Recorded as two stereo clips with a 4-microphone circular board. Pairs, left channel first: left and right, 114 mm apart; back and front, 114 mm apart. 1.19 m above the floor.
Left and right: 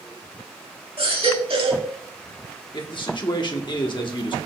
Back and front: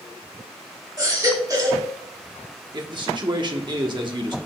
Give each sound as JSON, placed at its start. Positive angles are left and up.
{"t": 1.0, "sound": "a baby crying", "azimuth_deg": -55, "distance_m": 2.0}
{"t": 2.7, "sound": "a man speaking", "azimuth_deg": 45, "distance_m": 1.3}